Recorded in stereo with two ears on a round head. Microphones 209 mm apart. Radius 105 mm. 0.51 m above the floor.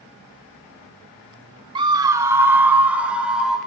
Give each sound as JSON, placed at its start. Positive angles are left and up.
{"t": 1.8, "sound": "a scream", "side_deg": -20, "distance_m": 0.8}